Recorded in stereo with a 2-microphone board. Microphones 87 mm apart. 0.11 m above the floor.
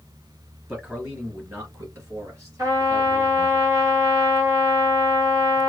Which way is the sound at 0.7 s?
10° right (ahead or behind).